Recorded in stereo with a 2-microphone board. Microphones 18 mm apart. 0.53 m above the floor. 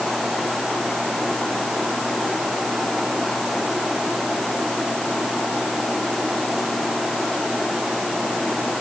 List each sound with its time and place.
Only background noise.